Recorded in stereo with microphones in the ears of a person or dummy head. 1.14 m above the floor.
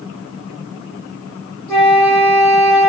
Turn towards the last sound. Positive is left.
turn(degrees=10)  # may be behind; listen again after turning